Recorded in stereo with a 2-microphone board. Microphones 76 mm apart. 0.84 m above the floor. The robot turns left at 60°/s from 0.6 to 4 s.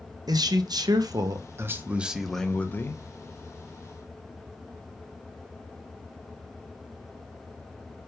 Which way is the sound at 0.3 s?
80° right.